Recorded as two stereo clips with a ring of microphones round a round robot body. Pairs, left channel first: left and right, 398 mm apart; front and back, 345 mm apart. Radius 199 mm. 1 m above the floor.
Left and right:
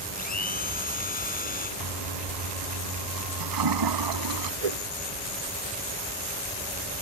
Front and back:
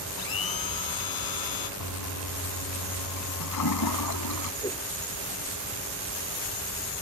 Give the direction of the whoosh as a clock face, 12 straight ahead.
3 o'clock.